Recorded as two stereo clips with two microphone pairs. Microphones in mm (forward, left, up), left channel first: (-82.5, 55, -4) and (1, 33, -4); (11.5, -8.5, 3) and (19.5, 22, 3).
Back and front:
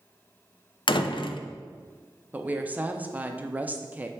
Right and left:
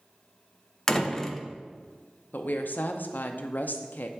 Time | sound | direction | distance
0.9 | a door slam | 175° right | 0.5 m
2.3 | a woman speaking | 90° right | 0.5 m